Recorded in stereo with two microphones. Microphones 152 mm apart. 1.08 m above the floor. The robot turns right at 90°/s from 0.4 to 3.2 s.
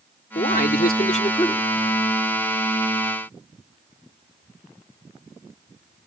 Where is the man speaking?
60° left; by 1.7 s 175° left.